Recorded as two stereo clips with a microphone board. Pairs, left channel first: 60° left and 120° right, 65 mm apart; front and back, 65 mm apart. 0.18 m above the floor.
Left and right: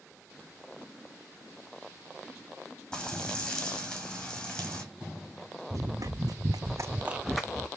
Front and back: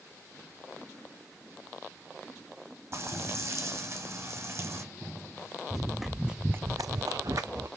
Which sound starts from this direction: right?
Running footsteps, at 5.7 s.